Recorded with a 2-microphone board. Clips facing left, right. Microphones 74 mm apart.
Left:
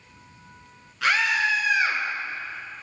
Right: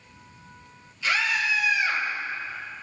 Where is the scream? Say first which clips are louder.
Left 3 dB; 85° left, 8.5 m.